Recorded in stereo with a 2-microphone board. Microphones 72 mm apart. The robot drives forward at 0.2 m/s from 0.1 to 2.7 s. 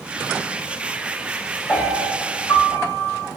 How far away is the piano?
About 1.7 m.